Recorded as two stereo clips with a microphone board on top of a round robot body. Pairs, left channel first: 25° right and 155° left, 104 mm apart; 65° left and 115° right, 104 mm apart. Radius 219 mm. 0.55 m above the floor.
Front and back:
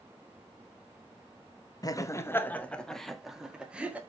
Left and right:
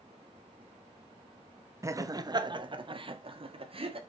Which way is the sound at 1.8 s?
60° right.